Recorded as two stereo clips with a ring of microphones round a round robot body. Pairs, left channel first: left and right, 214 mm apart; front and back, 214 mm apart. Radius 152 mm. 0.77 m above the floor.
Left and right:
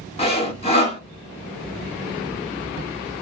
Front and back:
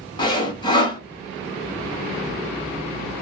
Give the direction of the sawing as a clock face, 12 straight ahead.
10 o'clock.